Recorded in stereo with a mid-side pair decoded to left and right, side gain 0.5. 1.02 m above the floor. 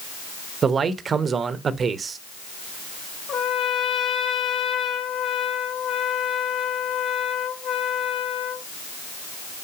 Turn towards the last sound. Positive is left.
turn(degrees=60)